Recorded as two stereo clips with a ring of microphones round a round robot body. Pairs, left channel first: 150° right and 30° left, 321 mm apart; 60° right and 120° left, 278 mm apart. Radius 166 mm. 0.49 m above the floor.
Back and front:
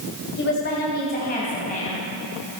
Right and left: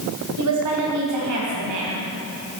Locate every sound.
0.4 s a woman speaking: 155° left, 2.5 m; by 2.1 s 140° left, 4 m